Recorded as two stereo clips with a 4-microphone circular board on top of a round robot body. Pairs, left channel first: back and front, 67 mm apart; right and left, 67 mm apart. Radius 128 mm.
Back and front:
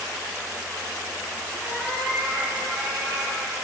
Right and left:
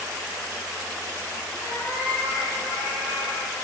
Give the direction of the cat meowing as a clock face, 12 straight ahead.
3 o'clock.